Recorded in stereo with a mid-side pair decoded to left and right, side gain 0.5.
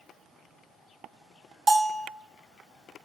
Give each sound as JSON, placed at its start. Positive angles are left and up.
{"t": 1.7, "sound": "a bell", "azimuth_deg": -30, "distance_m": 1.0}